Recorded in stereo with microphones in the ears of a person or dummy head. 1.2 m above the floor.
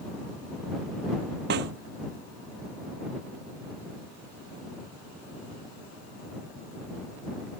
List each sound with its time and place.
1.5 s a snare drum: 65° right (ahead or behind)